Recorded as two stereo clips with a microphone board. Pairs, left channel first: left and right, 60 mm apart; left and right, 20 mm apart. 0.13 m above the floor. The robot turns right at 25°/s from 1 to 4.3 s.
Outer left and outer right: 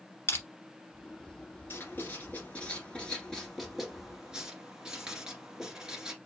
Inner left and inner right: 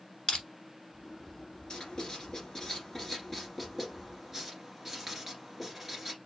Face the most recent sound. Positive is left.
turn(degrees=-15)  # may be behind; listen again after turning